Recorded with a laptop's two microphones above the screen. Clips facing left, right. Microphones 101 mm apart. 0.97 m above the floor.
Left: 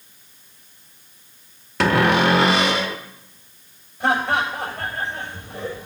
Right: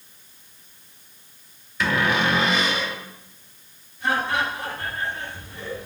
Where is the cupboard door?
75° left (ahead or behind), 1.2 m.